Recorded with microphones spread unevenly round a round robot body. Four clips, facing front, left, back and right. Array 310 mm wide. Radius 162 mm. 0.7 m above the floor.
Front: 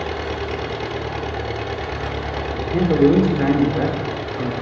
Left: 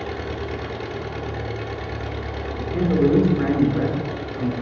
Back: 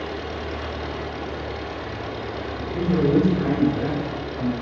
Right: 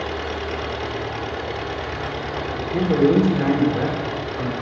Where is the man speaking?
25° right, 2.5 m.